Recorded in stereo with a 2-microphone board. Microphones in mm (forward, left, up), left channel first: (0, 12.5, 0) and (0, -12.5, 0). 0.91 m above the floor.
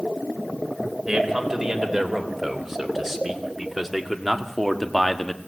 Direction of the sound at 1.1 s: 10° right (ahead or behind).